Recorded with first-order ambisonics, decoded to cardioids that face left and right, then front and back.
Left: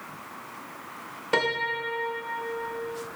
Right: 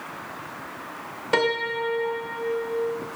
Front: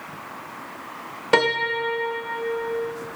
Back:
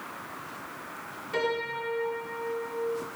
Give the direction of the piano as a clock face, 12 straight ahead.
12 o'clock.